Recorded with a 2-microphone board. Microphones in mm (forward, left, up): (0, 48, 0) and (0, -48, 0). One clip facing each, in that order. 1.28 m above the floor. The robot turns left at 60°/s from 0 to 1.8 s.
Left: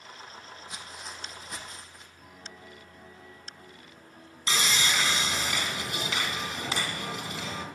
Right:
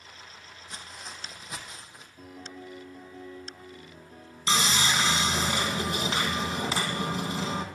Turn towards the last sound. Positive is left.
turn(degrees=-35)  # may be behind; listen again after turning